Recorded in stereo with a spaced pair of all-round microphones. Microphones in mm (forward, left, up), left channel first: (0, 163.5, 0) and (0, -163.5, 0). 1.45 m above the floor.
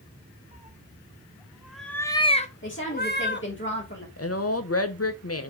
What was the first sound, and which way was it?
A cat meowing, 20° right (ahead or behind).